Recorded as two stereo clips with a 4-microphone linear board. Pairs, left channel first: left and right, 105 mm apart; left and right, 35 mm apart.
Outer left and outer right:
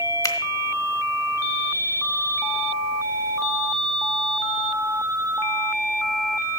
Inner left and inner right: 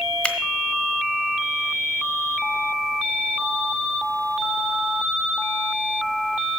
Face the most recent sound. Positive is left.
turn(degrees=30)  # may be behind; listen again after turning